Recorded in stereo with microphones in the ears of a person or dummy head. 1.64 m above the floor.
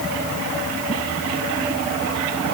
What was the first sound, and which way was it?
Only background noise.